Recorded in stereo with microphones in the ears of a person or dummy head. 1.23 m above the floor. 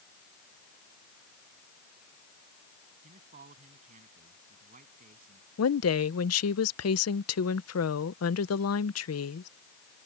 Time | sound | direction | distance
3.0 | a man speaking | 45° right (ahead or behind) | ?
5.6 | a woman speaking | 75° left (ahead or behind) | ?